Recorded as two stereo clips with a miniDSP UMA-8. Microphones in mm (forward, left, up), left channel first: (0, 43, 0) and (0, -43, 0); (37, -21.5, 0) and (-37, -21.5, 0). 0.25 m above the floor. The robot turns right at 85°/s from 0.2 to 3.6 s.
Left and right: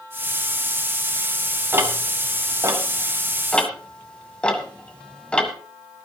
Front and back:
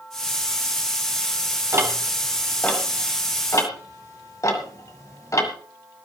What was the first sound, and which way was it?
Ticking, 145° right.